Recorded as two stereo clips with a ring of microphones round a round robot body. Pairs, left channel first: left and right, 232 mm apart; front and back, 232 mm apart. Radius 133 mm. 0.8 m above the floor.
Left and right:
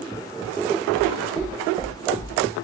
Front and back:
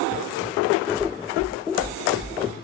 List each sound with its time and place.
0.9 s knocking: 100° left, 3.5 m